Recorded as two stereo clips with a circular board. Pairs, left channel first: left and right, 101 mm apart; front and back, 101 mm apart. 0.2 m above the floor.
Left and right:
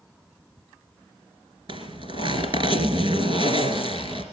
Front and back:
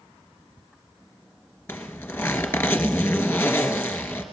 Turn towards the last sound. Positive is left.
turn(degrees=-70)